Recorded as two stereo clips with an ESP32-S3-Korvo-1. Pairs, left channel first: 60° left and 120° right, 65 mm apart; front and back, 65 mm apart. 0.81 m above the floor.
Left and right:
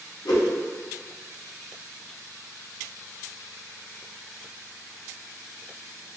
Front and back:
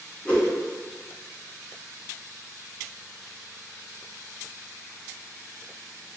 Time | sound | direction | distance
0.2 | a whoosh | 70° left | 0.8 m